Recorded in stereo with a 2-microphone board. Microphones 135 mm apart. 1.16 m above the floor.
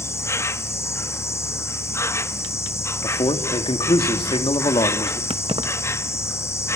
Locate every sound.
0.0 s an insect: 20° left (ahead or behind), 0.7 m
3.0 s a man speaking: 40° left (ahead or behind), 2.5 m
5.3 s keys jangling: 45° right (ahead or behind), 0.9 m